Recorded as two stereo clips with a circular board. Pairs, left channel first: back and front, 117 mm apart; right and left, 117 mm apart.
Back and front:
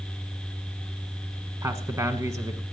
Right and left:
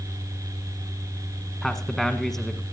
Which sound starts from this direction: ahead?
A man speaking, at 1.6 s.